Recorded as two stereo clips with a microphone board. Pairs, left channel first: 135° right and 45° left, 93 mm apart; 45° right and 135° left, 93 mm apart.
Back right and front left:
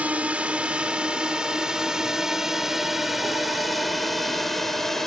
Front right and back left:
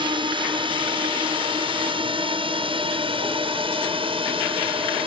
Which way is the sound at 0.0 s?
120° left.